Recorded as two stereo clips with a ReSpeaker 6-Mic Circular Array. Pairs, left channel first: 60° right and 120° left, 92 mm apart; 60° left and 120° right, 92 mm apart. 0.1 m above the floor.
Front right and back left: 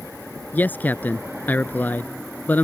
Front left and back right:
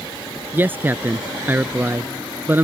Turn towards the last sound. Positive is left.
turn(degrees=-95)